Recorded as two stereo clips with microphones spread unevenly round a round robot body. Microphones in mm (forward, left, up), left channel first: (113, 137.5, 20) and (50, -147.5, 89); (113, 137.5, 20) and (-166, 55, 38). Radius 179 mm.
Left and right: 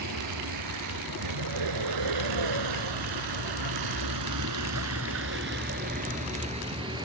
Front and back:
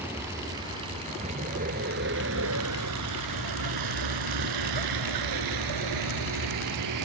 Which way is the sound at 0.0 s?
80° right.